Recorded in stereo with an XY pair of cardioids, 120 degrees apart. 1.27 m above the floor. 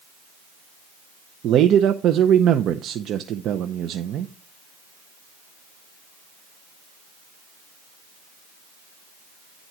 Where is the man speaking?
60° right, 0.6 m.